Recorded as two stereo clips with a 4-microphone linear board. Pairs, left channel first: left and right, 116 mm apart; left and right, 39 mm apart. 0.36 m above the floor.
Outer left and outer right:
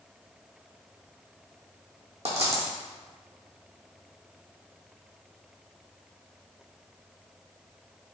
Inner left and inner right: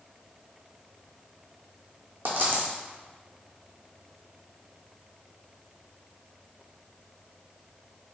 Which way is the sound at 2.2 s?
65° right (ahead or behind).